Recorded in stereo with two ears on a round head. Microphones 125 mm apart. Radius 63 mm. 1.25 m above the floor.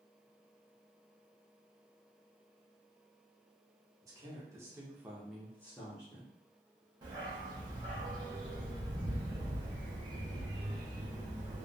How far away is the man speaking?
About 1.1 m.